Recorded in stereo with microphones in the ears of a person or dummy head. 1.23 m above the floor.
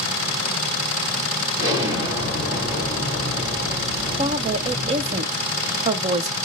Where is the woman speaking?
35° right (ahead or behind), 0.5 m.